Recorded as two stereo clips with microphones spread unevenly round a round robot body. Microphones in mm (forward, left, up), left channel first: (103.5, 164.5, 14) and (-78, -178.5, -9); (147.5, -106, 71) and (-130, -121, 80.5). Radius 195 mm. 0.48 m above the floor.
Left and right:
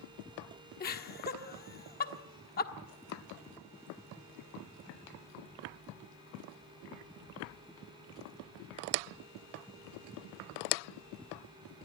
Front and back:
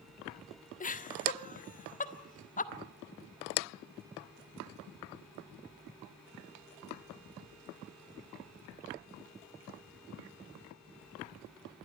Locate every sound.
0.8 s laughter: 15° left, 1.4 m